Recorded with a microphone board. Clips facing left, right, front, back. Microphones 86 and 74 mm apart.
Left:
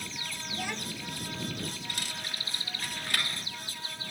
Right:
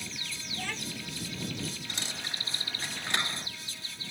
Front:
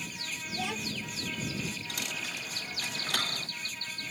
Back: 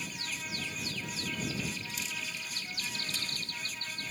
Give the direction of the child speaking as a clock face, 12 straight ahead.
12 o'clock.